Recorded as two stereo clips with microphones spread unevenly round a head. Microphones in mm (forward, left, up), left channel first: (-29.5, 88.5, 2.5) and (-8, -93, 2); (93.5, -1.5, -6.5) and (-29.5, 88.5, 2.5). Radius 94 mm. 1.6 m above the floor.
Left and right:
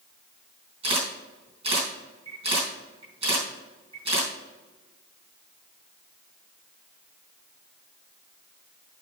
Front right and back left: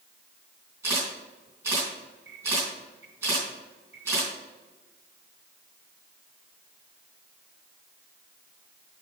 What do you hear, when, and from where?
0.8 s a camera shutter: 140° right, 4.5 m